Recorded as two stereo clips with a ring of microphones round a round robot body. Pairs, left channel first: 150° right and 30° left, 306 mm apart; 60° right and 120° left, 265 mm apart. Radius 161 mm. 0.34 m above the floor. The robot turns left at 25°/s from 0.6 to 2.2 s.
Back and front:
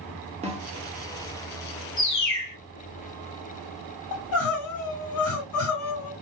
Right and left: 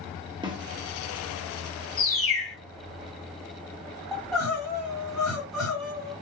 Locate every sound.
0.4 s a snare drum: 70° left, 1.3 m
2.0 s a bird: 160° right, 2.5 m; by 2.5 s 165° right, 2.5 m
4.1 s crying: 150° right, 2.5 m